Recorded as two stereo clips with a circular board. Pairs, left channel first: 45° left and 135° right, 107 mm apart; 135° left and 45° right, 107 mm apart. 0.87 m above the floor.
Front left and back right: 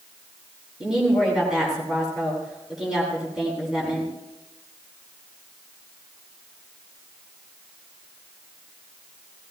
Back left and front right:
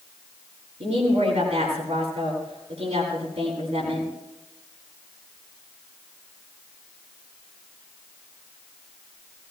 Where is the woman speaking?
50° right, 8.5 m.